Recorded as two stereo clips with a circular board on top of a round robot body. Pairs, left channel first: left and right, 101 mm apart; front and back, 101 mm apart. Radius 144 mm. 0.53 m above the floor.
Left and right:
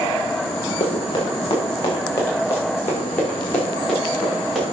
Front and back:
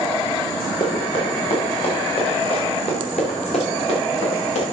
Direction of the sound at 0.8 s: 45° left.